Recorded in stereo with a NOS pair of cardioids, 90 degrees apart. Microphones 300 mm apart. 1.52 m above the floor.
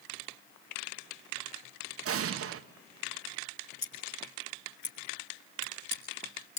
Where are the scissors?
40° left, 4 m.